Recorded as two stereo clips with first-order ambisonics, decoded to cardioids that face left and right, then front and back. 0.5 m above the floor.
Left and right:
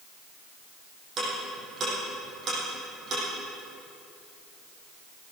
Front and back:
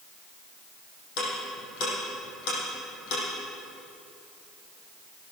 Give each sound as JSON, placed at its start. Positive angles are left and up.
{"t": 1.2, "sound": "ticking", "azimuth_deg": -25, "distance_m": 6.5}